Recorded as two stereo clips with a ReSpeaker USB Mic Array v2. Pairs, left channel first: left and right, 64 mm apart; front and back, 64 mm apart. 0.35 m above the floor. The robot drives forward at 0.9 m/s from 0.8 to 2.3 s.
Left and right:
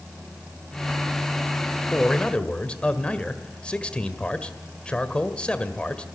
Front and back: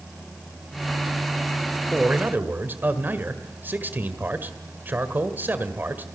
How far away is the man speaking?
About 1.4 m.